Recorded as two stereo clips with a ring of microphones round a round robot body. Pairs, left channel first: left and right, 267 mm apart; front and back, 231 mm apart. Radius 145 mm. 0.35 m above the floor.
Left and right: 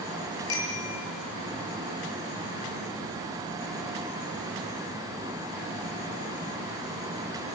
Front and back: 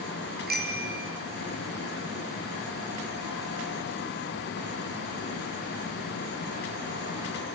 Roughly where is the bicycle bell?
Behind left.